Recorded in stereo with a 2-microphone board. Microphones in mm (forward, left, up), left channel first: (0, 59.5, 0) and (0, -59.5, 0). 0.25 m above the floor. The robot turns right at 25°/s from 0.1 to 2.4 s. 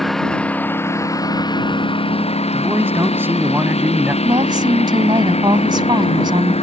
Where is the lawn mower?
Straight ahead; by 6.6 s 60° left.